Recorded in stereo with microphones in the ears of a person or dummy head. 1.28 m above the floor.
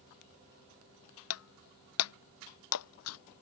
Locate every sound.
1.3 s breaking glass: 80° left